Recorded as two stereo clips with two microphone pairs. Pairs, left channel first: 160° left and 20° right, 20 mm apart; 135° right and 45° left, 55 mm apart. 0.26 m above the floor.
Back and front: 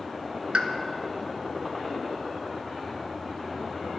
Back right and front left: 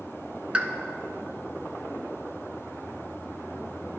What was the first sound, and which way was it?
A pop, 25° right.